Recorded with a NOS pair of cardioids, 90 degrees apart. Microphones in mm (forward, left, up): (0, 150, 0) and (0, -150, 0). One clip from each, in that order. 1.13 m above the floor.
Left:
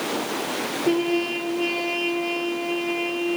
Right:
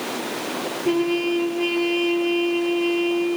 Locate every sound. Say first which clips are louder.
0.8 s a trumpet: right 2 dB; 5° right, 4 m